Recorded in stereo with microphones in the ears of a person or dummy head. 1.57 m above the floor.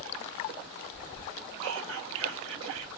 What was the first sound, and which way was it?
Whispering, 75° right (ahead or behind).